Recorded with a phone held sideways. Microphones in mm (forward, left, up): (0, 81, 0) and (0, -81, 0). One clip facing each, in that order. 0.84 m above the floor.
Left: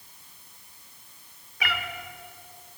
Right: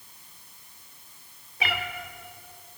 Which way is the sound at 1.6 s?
25° right (ahead or behind).